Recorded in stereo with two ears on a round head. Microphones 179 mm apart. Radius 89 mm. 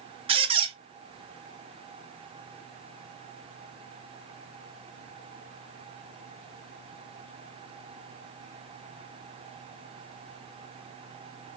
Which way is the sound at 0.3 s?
30° right (ahead or behind).